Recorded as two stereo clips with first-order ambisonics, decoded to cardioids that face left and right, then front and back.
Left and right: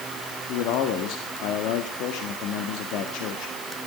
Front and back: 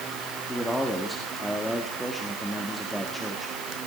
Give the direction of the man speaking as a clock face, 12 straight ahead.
9 o'clock.